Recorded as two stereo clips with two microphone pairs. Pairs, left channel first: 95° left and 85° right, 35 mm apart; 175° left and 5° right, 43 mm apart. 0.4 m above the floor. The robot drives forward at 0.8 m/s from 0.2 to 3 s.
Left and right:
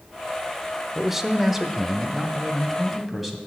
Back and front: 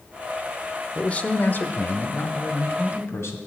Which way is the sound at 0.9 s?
145° right.